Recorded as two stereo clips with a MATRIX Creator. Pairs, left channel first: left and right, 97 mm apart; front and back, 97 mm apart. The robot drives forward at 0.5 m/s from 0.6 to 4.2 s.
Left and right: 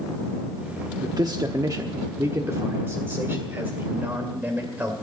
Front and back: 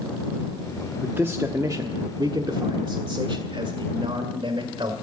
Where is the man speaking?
110° right, 0.9 m; by 4.9 s 160° right, 2 m.